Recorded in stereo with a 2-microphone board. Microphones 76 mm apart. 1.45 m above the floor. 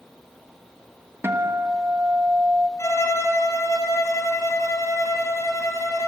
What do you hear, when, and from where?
1.2 s a guitar: 35° right (ahead or behind), 1.5 m
2.8 s a violin: 45° left (ahead or behind), 3 m